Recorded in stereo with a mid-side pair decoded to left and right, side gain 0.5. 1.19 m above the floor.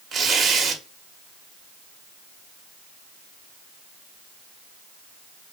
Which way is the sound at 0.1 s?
55° right.